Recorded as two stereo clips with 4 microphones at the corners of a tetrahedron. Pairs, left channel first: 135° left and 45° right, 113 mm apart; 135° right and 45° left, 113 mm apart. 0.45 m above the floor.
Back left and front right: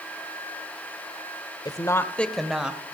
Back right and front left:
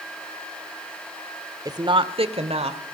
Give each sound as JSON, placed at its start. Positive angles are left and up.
{"t": 1.6, "sound": "a woman speaking", "azimuth_deg": 95, "distance_m": 1.1}